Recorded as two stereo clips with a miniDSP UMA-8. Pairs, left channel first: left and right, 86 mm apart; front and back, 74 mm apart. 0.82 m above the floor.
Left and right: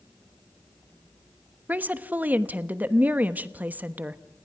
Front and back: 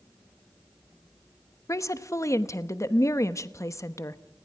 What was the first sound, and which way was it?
A woman speaking, 25° right.